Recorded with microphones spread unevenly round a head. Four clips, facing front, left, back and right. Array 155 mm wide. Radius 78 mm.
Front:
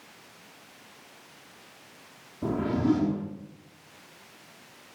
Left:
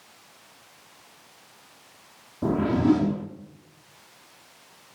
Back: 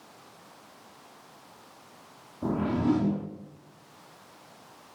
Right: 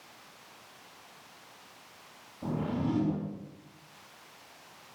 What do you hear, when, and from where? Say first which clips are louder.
2.4 s a whoosh: left 11 dB, front 1 dB; 80° left, 3 m